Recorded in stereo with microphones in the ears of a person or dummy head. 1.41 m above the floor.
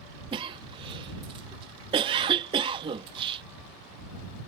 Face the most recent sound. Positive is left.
turn(degrees=-25)  # may be behind; listen again after turning